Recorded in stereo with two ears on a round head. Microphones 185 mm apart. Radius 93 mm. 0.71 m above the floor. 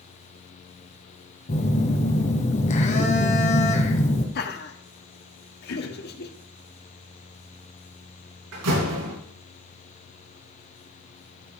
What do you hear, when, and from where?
1.5 s a phone buzzing: 35° left (ahead or behind), 2 m
4.3 s laughter: 50° left (ahead or behind), 1.7 m
5.7 s throat clearing: 70° left (ahead or behind), 1.5 m
8.5 s a door slam: 80° right, 6.5 m